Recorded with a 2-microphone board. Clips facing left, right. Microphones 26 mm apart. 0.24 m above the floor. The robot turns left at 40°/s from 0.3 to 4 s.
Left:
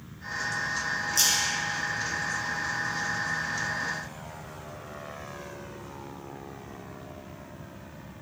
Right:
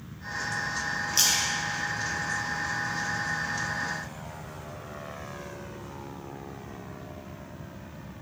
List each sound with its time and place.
1.1 s a splash: 30° right (ahead or behind), 1.0 m; by 2.9 s 25° right (ahead or behind), 1.0 m